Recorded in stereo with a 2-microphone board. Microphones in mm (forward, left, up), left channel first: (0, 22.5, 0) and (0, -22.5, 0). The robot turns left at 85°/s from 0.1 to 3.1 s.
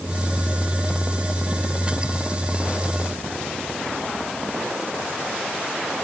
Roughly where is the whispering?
No whispering in this recording.